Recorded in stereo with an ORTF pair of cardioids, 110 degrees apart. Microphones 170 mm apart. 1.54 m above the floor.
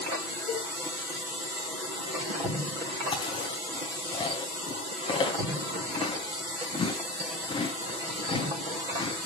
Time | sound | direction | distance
0.5 | a cowbell | 55° left | 4 m
3.1 | chewing | 30° left | 4 m